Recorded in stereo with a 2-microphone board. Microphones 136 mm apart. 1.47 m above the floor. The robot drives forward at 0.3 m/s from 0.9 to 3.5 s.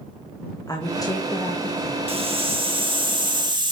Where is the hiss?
45° right (ahead or behind), 1.4 m; by 3.7 s 35° right (ahead or behind), 1.8 m.